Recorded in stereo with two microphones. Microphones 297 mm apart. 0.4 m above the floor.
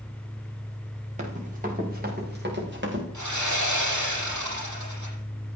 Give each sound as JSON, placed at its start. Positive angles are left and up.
{"t": 1.2, "sound": "running footsteps", "side_deg": -25, "distance_m": 5.5}
{"t": 3.1, "sound": "sawing", "side_deg": -80, "distance_m": 8.0}